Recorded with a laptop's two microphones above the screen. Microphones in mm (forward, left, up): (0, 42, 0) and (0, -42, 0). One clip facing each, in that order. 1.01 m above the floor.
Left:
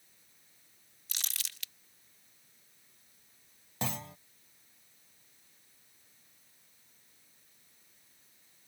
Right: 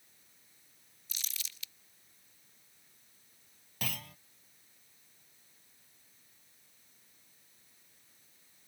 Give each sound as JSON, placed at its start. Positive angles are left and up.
{"t": 1.1, "sound": "crumpling", "side_deg": 70}
{"t": 3.8, "sound": "a clunk", "side_deg": 25}